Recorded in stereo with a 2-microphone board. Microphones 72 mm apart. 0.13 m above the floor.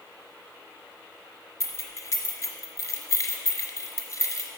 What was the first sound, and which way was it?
Keys jangling, 40° left (ahead or behind).